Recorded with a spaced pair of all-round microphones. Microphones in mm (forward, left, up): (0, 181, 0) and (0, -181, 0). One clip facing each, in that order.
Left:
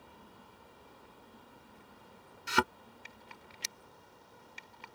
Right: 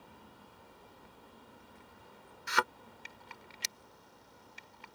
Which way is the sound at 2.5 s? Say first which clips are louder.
Left 4 dB; 45° left (ahead or behind).